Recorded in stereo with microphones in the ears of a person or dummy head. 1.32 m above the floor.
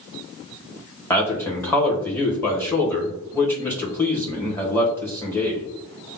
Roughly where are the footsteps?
I don't hear footsteps.